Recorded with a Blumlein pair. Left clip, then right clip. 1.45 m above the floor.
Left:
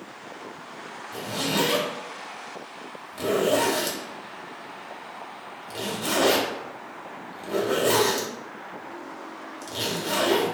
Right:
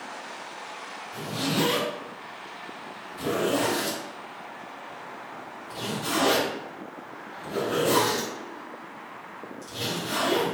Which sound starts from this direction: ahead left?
A zipper, at 1.1 s.